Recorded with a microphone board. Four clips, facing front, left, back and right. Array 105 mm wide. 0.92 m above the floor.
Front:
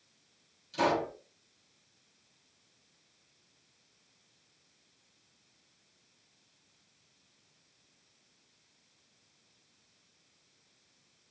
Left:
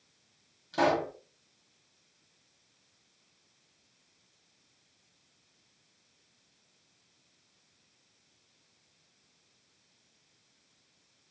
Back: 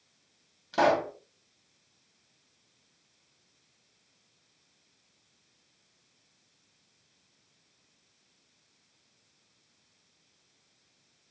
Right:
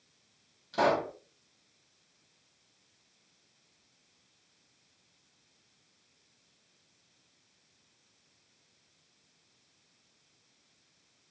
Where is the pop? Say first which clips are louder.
Even, back 5 dB; 175° left, 1.0 m.